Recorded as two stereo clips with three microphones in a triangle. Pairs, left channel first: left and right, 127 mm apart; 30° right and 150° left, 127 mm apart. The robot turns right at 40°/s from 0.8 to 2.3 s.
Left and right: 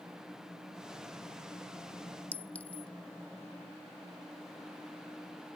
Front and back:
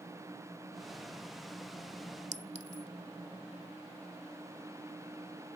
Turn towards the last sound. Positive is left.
turn(degrees=170)